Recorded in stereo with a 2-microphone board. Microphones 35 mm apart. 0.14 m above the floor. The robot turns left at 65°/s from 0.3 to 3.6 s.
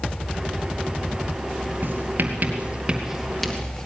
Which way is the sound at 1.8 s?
65° right (ahead or behind).